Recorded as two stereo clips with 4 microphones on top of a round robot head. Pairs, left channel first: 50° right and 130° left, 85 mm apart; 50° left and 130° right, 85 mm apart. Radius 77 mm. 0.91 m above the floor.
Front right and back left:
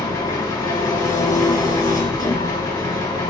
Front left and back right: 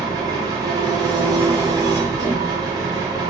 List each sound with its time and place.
0.0 s an engine running: 95° right, 0.9 m